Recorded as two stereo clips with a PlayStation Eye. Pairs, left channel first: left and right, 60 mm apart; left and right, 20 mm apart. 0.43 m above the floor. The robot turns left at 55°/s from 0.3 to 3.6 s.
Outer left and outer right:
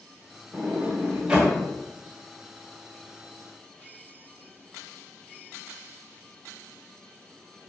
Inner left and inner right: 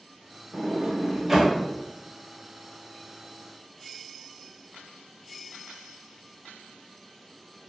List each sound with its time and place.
0.5 s a sliding door: 25° right (ahead or behind), 0.8 m; by 1.6 s 10° right (ahead or behind), 0.8 m